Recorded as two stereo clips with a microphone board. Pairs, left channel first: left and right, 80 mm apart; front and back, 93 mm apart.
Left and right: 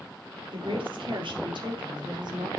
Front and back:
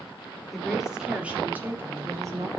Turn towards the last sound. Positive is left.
turn(degrees=-125)